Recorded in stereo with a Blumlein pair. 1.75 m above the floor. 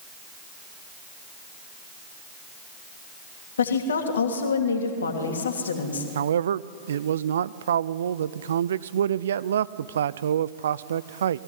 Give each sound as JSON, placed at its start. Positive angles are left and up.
{"t": 3.6, "sound": "a woman speaking", "azimuth_deg": 70, "distance_m": 3.0}
{"t": 6.2, "sound": "a man speaking", "azimuth_deg": -65, "distance_m": 0.5}